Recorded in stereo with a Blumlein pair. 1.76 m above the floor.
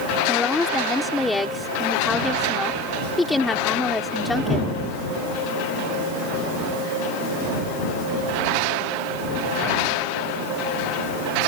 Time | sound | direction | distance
0.3 | a woman speaking | 5° left | ?